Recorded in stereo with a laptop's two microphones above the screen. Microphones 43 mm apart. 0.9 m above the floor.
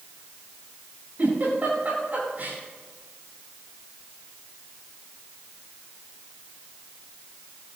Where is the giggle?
45° right (ahead or behind), 8 m.